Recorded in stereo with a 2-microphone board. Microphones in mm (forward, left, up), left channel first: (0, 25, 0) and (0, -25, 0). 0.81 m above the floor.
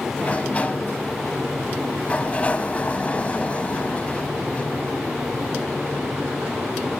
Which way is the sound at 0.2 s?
25° left (ahead or behind).